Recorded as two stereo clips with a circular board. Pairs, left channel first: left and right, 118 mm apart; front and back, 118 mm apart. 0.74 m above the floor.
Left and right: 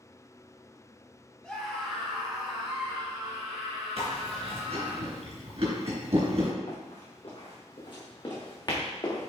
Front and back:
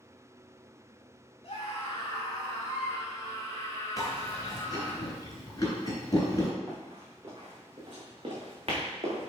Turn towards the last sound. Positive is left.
turn(degrees=145)